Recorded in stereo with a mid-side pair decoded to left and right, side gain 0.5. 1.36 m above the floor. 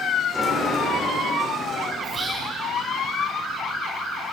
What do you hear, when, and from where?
0.3 s a sliding door: 5° left, 1.6 m
2.0 s whispering: 30° right, 0.9 m